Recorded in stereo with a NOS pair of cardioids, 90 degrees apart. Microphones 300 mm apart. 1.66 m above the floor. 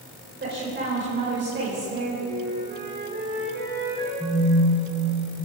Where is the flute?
40° right, 6 m.